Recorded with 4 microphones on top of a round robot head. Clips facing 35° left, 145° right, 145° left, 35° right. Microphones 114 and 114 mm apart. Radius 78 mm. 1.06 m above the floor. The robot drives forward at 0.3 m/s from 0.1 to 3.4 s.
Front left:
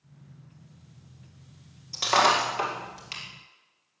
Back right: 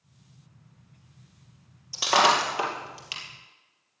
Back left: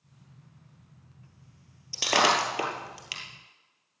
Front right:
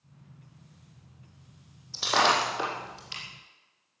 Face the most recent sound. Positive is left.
turn(degrees=135)